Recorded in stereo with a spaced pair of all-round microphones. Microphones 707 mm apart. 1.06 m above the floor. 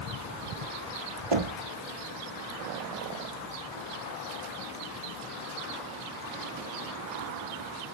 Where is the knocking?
45° right (ahead or behind), 1.2 m.